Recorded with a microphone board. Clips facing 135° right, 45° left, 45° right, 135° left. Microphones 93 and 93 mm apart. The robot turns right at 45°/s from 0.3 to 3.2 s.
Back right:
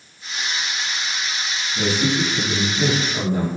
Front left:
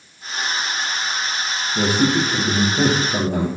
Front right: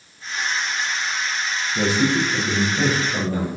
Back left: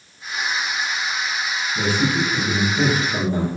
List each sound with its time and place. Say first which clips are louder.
1.8 s a man speaking: front left 3 dB, front right 2 dB; straight ahead, 4 m; by 3.5 s 65° left, 4 m